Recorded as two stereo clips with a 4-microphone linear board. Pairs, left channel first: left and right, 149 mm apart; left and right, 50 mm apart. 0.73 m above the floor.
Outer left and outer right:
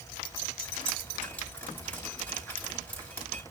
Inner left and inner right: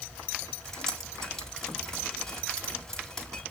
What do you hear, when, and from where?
0.7 s dripping: 15° left (ahead or behind), 4 m